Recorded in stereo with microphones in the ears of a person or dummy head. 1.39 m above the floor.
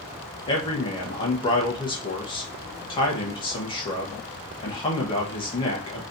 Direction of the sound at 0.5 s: 25° left (ahead or behind).